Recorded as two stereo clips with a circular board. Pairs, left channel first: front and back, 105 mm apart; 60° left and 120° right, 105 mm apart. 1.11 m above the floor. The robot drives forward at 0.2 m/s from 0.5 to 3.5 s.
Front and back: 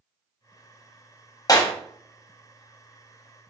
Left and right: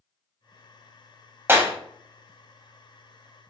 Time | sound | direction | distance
1.5 | a clap | 50° right | 0.6 m